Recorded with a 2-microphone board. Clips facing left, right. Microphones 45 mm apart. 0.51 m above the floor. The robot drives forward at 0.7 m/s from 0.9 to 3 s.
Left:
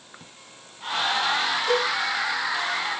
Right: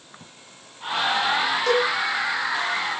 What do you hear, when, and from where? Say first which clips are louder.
1.7 s a cowbell: right 3 dB; 80° right, 5 m; by 1.9 s 75° right (ahead or behind), 5 m